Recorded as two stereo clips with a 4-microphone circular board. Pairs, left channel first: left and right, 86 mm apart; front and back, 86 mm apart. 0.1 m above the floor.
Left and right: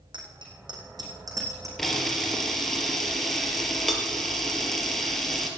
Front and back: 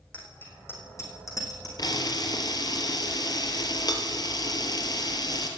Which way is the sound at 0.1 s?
75° right.